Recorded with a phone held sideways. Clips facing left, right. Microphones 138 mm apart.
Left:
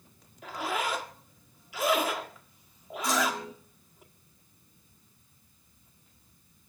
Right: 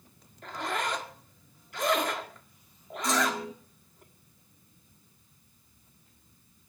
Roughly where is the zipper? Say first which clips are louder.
Left 1 dB; centre.